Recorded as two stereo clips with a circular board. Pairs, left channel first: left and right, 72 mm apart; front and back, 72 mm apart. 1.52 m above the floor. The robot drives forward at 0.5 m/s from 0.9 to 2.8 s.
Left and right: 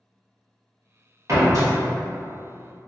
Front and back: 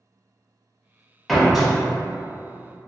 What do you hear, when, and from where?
1.3 s a door slam: 85° right, 1.0 m; by 1.7 s 105° right, 1.0 m